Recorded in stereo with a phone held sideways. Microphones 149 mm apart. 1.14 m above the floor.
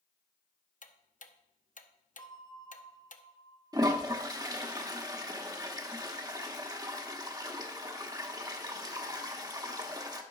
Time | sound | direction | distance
0.8 | ticking | 60° left (ahead or behind) | 0.8 m
2.2 | a bell | 30° left (ahead or behind) | 1.0 m
3.7 | a toilet flushing | 25° right (ahead or behind) | 1.0 m